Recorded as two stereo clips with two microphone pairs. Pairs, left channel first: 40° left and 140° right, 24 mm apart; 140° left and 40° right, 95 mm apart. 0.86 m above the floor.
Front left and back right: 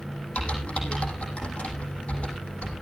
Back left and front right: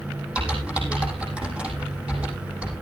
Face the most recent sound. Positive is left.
turn(degrees=40)